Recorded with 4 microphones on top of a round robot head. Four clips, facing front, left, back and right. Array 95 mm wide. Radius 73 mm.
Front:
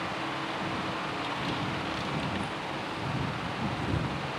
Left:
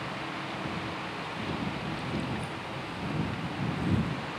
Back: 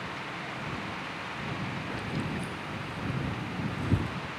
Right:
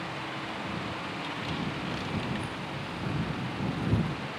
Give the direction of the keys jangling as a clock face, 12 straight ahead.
5 o'clock.